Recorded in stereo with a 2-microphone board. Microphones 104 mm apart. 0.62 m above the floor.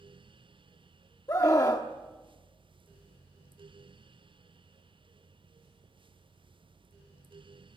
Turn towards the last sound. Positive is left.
turn(degrees=35)  # may be behind; listen again after turning